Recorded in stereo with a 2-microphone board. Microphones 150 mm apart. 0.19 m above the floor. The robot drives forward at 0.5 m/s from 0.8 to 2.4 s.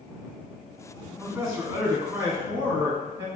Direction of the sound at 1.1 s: 10° right (ahead or behind).